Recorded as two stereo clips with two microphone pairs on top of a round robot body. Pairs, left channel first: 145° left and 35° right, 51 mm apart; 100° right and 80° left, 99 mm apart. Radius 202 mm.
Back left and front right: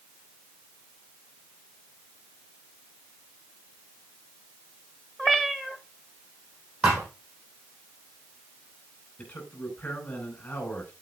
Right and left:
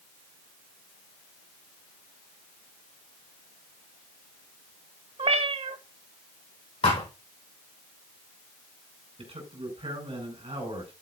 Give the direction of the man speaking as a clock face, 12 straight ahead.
9 o'clock.